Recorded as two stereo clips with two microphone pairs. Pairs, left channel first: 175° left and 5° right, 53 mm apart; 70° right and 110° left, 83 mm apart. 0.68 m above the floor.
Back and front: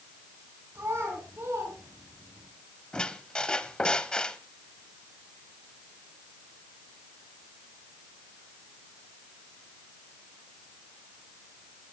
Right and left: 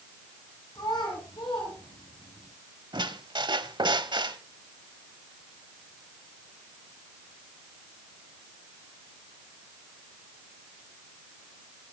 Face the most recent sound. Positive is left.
turn(degrees=105)